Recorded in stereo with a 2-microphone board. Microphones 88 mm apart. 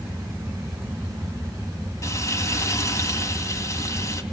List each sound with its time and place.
2.0 s frying: 35° left (ahead or behind), 2.5 m